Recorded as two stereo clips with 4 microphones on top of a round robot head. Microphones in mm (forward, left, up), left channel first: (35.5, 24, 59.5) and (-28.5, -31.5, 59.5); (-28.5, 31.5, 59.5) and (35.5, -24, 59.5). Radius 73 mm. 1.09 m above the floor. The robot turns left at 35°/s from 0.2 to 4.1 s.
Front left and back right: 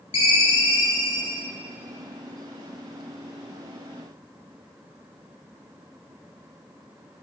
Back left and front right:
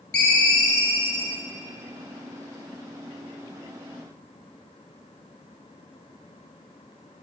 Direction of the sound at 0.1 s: 65° left.